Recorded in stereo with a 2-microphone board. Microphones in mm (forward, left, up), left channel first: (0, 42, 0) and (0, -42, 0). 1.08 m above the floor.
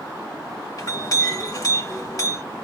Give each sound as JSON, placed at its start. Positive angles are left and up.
{"t": 0.8, "sound": "a clink", "side_deg": 45, "distance_m": 1.4}